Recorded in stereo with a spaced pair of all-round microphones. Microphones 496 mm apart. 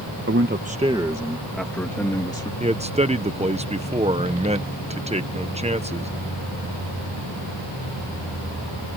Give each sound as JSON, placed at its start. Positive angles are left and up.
{"t": 0.3, "sound": "a man speaking", "side_deg": -25}
{"t": 2.6, "sound": "a man speaking", "side_deg": -15}